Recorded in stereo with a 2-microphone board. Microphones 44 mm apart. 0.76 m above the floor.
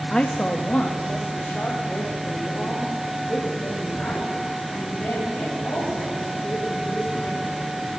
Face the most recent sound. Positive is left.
turn(degrees=45)  # may be behind; listen again after turning